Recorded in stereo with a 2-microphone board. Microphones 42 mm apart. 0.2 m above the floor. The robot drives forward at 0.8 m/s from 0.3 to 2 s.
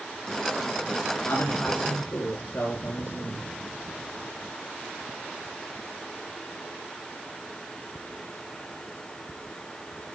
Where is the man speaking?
65° left (ahead or behind), 3.5 m; by 3.5 s 60° left (ahead or behind), 3.5 m.